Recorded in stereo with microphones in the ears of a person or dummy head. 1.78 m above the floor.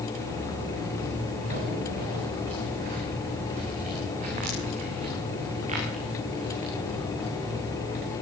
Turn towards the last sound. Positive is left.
turn(degrees=-40)  # may be behind; listen again after turning